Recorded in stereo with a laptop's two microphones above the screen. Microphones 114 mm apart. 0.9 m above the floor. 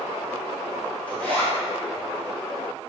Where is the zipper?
10° left (ahead or behind), 1.1 m.